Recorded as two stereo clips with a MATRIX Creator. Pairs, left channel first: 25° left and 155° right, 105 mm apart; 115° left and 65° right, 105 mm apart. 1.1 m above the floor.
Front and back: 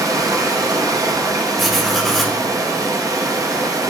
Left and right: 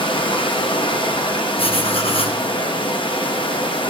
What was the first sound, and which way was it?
Running water, 145° left.